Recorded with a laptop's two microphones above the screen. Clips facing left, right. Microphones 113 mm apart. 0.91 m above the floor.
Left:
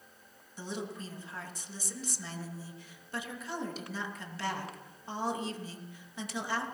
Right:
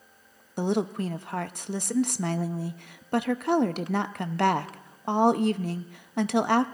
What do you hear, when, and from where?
0.6 s a woman speaking: 65° right (ahead or behind), 0.8 m